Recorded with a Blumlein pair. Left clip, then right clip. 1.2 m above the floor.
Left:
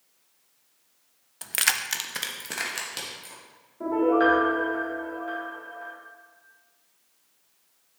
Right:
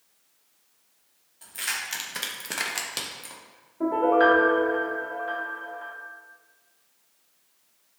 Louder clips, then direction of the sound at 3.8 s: Right 2 dB; 10° right.